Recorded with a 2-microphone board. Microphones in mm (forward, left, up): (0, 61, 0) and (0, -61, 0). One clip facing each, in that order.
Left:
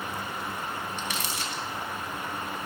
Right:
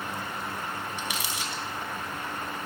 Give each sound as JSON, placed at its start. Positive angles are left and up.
{"t": 1.0, "sound": "crumpling", "side_deg": -10, "distance_m": 2.0}